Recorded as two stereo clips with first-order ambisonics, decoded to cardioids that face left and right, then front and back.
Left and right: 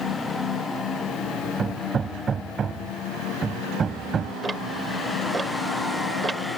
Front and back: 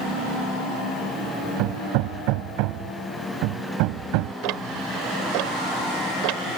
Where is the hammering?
160° right.